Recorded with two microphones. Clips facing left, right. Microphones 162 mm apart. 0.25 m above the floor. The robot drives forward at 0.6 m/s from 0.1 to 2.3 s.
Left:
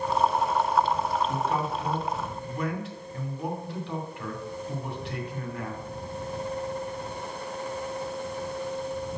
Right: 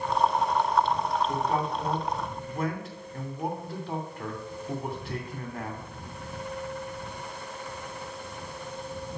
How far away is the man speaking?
About 2.5 m.